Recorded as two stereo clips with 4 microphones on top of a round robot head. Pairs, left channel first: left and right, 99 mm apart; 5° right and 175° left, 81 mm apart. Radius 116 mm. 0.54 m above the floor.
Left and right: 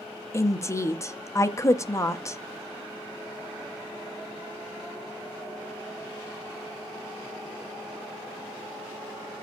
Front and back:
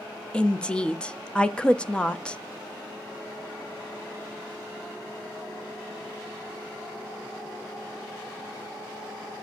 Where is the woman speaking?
65° left, 0.8 m.